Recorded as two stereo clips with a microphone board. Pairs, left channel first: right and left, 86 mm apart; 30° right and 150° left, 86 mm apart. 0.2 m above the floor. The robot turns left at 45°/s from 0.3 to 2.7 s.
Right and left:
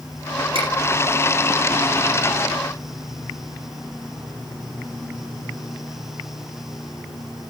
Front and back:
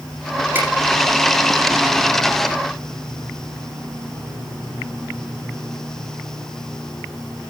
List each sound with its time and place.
0.6 s a finger snap: 85° left, 10 m; by 0.7 s 80° left, 10 m